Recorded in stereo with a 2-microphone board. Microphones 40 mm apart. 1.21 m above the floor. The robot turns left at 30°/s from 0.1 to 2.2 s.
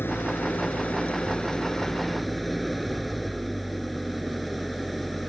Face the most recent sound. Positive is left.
turn(degrees=0)